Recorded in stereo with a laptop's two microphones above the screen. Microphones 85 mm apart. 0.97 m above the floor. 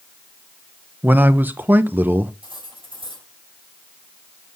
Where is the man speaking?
20° right (ahead or behind), 0.6 m.